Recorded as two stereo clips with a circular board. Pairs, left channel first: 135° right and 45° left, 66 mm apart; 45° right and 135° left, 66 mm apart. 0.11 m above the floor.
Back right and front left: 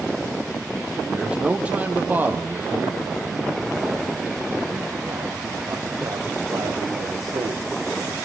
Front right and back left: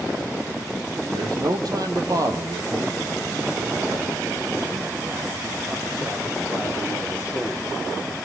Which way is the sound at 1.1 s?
120° left.